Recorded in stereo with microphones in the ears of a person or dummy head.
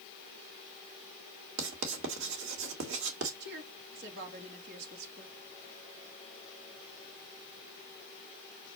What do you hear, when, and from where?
1.6 s writing: 75° right (ahead or behind), 1.9 m
3.4 s a woman speaking: 60° right (ahead or behind), 2.5 m